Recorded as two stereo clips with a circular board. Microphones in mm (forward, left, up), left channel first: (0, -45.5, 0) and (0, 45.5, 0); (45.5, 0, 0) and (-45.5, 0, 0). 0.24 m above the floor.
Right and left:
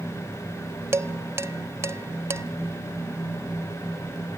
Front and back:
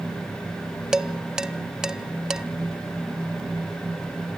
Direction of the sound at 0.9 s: 105° left.